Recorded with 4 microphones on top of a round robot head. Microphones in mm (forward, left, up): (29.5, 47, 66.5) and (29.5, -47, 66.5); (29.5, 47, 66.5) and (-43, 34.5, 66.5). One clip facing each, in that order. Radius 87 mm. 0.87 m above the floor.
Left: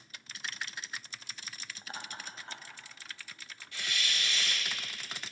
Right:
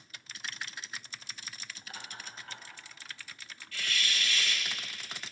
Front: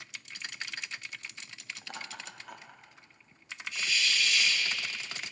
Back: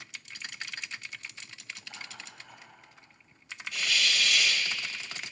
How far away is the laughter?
About 1.8 m.